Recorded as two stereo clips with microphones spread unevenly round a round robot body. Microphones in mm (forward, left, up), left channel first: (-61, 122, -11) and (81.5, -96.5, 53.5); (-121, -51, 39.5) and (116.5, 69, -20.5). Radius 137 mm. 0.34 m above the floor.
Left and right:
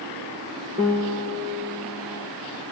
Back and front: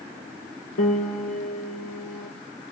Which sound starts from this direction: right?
A piano, at 0.8 s.